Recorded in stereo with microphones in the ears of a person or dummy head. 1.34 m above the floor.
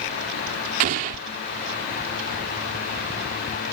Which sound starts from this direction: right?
An explosion, at 0.8 s.